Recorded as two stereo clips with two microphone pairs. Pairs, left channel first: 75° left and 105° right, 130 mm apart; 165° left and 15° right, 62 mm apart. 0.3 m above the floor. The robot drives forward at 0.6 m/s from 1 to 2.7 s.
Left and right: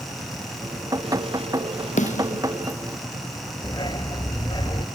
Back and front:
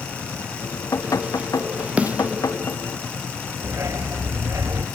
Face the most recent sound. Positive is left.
turn(degrees=25)